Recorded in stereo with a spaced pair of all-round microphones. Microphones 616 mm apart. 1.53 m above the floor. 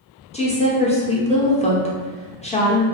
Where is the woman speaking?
10° left (ahead or behind), 0.7 m.